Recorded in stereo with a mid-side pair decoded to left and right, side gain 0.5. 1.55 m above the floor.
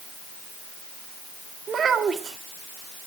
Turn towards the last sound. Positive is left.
turn(degrees=-45)